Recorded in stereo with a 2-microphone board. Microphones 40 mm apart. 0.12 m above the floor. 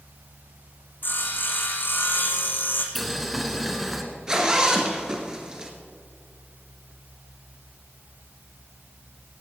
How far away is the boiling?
About 1.4 m.